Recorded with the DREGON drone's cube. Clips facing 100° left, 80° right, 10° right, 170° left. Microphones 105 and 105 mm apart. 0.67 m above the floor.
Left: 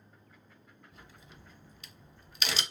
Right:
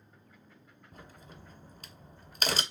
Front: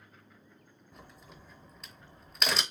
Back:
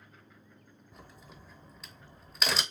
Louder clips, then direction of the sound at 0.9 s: Right 6 dB, even; 105° right.